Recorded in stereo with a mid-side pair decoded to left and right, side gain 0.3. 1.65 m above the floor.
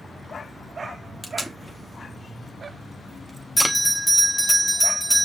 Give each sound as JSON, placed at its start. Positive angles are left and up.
{"t": 1.2, "sound": "tape being pulled", "azimuth_deg": 5, "distance_m": 1.1}
{"t": 3.6, "sound": "a bell", "azimuth_deg": 5, "distance_m": 1.5}